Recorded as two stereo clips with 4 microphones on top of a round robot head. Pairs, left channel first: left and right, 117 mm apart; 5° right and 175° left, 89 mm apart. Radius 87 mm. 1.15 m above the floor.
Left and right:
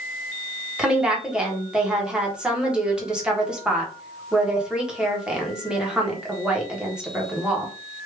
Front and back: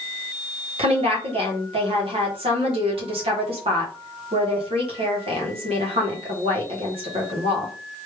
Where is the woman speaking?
175° right, 1.5 m.